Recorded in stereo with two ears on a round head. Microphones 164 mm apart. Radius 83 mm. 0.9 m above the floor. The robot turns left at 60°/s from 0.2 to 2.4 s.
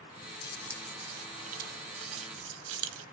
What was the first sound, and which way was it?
Keys jangling, 20° left (ahead or behind).